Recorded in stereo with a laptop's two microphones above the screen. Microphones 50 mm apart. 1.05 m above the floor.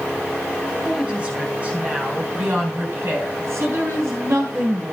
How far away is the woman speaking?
About 4.5 m.